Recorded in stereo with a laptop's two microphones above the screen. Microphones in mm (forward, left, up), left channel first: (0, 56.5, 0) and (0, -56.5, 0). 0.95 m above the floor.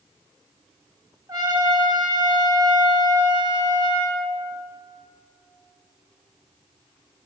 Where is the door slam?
I don't hear a door slam.